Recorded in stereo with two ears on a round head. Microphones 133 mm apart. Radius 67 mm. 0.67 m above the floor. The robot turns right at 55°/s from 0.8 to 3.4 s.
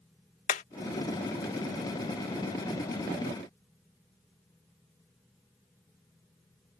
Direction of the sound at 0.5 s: 55° left (ahead or behind).